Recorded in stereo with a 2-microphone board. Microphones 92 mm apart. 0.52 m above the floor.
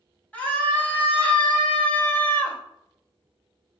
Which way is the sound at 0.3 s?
20° left (ahead or behind).